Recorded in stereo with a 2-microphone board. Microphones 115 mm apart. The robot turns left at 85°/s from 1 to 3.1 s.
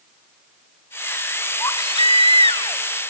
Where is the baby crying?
150° left, 1.2 m; by 2.8 s 45° left, 1.2 m.